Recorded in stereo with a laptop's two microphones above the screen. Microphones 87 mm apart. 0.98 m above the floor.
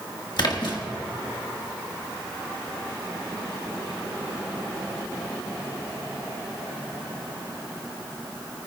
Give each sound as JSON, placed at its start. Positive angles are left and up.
{"t": 0.4, "sound": "a splash", "side_deg": 60, "distance_m": 1.7}